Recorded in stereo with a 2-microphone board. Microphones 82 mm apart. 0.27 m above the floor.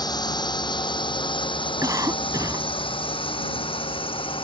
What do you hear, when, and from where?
0.0 s a drone: 50° left (ahead or behind); by 4.4 s 85° left
1.8 s a cough: 40° right (ahead or behind)